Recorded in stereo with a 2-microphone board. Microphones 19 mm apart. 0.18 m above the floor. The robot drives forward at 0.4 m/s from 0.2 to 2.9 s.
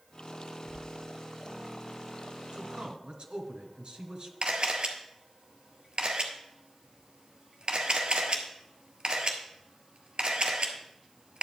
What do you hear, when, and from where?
0.7 s a sliding door: 25° left (ahead or behind), 4 m; by 0.8 s 20° left (ahead or behind), 4 m
2.5 s a man speaking: 55° right (ahead or behind), 1.6 m; by 4.3 s 50° right (ahead or behind), 1.6 m
4.4 s a camera shutter: 50° right (ahead or behind), 1.4 m